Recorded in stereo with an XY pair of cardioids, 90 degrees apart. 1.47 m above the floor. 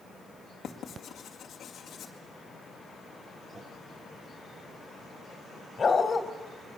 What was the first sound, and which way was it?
Writing, 70° left.